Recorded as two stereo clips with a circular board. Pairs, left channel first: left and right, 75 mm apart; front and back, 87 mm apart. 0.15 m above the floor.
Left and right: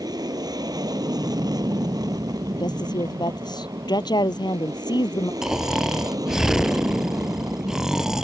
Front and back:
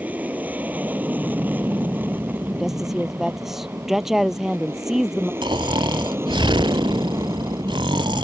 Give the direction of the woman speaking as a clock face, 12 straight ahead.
9 o'clock.